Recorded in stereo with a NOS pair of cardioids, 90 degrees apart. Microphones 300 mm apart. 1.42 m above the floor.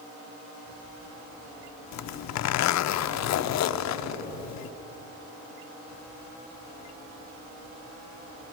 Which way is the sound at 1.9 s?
65° left.